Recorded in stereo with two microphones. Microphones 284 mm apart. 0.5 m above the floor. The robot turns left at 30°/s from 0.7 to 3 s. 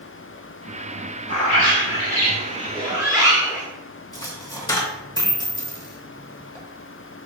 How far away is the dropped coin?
About 0.8 m.